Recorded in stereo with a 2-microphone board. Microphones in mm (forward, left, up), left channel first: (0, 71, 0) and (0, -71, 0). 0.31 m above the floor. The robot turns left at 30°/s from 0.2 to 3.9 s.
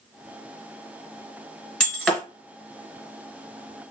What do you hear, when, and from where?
1.8 s breaking glass: 5° left (ahead or behind), 1.5 m; by 2.2 s 10° right (ahead or behind), 1.5 m